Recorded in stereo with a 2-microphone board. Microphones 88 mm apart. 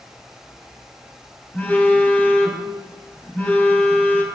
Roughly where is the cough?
No cough in this recording.